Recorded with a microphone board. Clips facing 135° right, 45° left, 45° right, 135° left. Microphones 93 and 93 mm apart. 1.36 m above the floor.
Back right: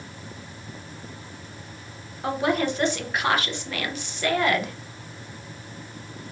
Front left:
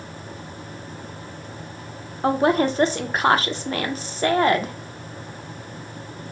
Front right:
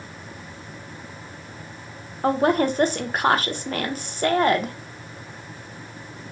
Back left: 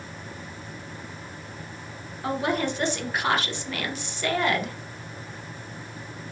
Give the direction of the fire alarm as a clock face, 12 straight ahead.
I don't hear a fire alarm.